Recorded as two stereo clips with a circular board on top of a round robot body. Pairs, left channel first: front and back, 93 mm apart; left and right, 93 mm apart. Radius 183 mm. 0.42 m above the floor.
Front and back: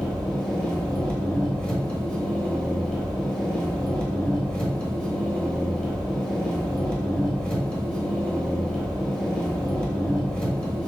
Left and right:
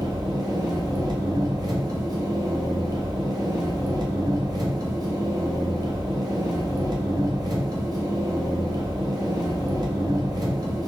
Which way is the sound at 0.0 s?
80° right.